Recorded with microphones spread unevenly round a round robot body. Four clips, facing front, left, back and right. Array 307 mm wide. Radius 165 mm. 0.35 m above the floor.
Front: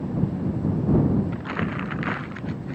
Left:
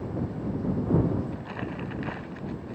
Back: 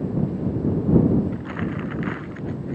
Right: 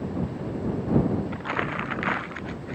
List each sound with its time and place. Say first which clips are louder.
1.3 s crumpling: right 6 dB, even; 50° right